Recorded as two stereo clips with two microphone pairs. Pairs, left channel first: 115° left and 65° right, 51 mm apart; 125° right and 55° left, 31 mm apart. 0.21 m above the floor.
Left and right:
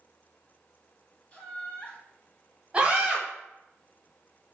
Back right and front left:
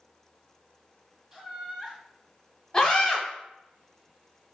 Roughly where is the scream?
Right.